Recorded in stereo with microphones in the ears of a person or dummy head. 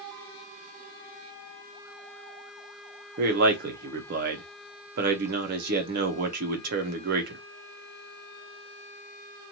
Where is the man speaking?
55° right (ahead or behind), 0.6 m.